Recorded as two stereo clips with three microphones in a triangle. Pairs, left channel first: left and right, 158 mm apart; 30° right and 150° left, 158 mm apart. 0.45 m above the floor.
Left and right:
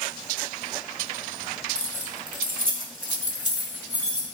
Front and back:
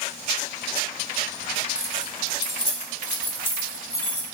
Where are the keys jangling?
125° right, 1.1 m; by 4.3 s 45° right, 2.0 m.